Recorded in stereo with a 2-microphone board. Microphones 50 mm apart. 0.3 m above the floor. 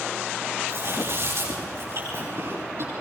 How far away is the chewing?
About 9.5 m.